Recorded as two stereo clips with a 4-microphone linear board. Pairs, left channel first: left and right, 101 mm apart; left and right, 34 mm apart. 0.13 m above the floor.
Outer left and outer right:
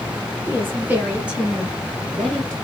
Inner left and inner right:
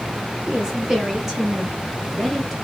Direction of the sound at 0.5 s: 20° right (ahead or behind).